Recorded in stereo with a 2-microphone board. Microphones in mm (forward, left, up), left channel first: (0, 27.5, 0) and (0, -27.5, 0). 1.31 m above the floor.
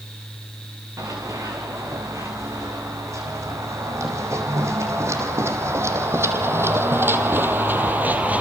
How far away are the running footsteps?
About 5.5 m.